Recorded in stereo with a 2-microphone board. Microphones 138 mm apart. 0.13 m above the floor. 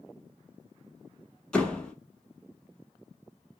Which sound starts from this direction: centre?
A door slam, at 1.5 s.